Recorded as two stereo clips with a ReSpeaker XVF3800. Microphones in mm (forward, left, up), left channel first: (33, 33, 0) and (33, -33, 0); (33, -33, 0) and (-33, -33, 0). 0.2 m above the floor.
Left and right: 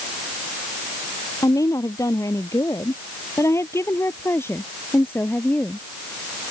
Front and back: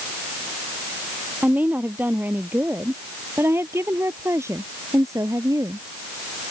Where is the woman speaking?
115° left; by 5.8 s 155° left.